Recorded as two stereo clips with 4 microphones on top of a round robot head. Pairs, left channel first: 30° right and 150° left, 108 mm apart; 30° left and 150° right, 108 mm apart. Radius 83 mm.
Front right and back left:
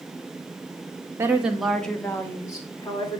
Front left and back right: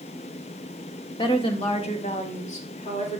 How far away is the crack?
I don't hear a crack.